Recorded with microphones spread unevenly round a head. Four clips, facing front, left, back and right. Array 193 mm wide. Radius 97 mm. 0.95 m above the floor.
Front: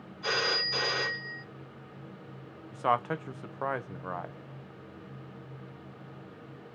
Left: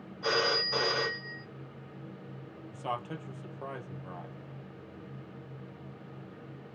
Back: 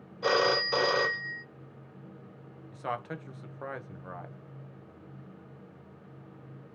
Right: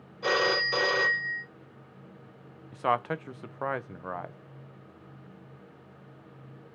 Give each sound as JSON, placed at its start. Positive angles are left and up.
{"t": 0.2, "sound": "a phone ringing", "azimuth_deg": -145, "distance_m": 1.1}
{"t": 2.7, "sound": "a man speaking", "azimuth_deg": -50, "distance_m": 0.5}